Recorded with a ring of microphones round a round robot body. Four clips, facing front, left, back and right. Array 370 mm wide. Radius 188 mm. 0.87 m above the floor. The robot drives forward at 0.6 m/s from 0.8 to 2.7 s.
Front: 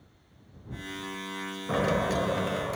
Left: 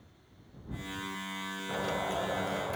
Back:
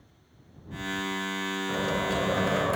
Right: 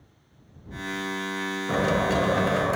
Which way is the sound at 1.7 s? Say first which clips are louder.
Right 10 dB, front 3 dB; 55° right.